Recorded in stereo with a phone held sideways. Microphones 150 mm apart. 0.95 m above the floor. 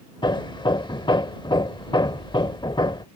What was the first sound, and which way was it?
Hammering, 30° left (ahead or behind).